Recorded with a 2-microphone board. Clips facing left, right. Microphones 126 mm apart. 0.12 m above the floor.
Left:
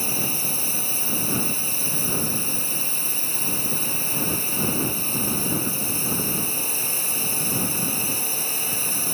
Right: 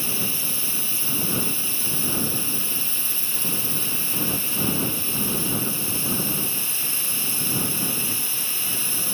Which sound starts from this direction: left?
A drone, at 0.0 s.